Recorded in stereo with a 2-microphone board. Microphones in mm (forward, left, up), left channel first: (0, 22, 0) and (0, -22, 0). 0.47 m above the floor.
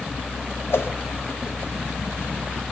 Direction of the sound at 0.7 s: 75° left (ahead or behind).